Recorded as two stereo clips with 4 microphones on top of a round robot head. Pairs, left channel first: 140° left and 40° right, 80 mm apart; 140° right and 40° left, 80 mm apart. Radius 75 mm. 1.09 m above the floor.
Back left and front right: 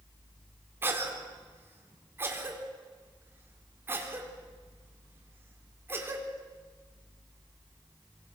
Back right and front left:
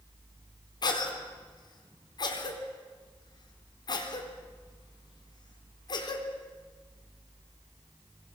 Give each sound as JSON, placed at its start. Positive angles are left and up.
{"t": 0.8, "sound": "a cough", "azimuth_deg": -105, "distance_m": 4.0}